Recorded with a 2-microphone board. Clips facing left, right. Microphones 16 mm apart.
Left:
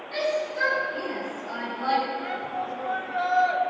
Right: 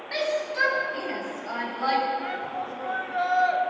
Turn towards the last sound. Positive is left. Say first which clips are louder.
# even
turn(degrees=0)  # may be behind; listen again after turning